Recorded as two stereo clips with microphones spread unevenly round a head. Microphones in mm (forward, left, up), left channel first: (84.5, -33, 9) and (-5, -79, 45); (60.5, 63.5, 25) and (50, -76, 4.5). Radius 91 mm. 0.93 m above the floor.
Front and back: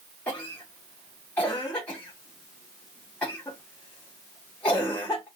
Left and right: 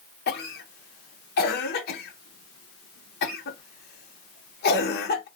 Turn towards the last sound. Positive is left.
turn(degrees=95)